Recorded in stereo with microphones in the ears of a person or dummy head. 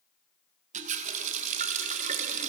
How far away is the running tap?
About 0.5 m.